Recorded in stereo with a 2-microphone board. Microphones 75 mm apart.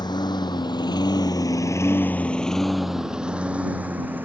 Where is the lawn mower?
80° left; by 4.2 s 25° right (ahead or behind).